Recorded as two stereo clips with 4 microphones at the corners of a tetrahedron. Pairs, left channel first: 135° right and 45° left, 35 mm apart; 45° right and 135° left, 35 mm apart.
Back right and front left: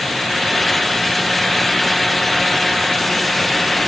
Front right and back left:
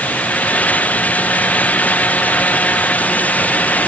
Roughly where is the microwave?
I don't hear a microwave.